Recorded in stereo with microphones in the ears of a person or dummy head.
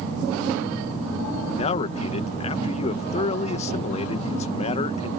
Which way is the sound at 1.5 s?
30° left (ahead or behind).